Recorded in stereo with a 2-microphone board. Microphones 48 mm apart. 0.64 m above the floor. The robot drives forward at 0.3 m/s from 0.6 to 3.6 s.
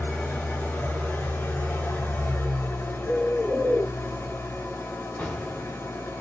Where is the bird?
45° left (ahead or behind), 2.5 m; by 3.9 s 40° left (ahead or behind), 2.5 m.